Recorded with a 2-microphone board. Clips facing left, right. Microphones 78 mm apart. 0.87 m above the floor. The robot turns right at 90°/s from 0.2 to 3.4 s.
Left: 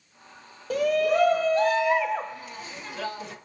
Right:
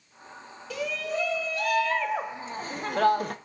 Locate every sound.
0.7 s a shout: 55° left, 0.9 m; by 3.4 s 65° right, 0.9 m